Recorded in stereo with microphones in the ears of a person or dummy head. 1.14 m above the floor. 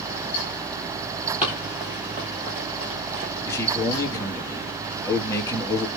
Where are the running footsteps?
Centre (ahead or behind), 1.4 m; by 3.3 s 40° right (ahead or behind), 1.4 m.